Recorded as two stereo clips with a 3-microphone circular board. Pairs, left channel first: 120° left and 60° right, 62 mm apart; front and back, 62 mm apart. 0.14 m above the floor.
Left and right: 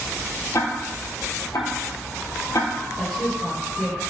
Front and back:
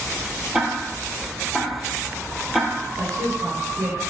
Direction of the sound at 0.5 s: 95° left.